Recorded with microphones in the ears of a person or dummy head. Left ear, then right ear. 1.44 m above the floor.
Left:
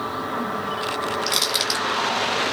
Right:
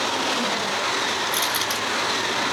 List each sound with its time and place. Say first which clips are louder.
1.3 s crushing: left 1 dB; 60° left (ahead or behind), 2 m